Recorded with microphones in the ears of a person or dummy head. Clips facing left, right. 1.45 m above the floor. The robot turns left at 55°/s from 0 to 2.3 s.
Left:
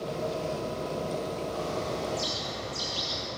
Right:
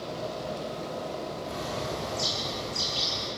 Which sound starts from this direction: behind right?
A bird, at 1.4 s.